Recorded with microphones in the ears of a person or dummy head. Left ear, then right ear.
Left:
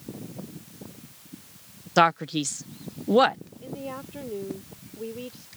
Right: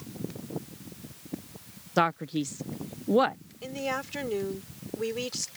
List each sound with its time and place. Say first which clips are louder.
2.0 s a man speaking: left 6 dB; 20° left (ahead or behind)
3.6 s a woman speaking: right 5 dB; 60° right (ahead or behind)